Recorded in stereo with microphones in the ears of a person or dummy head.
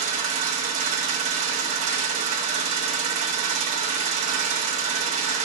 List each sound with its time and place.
0.0 s an engine running: 40° right (ahead or behind), 1.2 m